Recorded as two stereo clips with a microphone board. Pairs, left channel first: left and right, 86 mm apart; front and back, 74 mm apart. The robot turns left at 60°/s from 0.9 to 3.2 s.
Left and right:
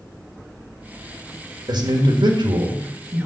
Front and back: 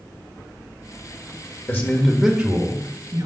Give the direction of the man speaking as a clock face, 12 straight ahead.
2 o'clock.